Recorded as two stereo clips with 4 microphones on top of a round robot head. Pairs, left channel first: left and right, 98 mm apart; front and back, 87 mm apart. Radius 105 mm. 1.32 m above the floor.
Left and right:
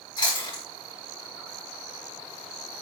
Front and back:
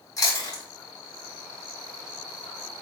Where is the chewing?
45° left, 4 m.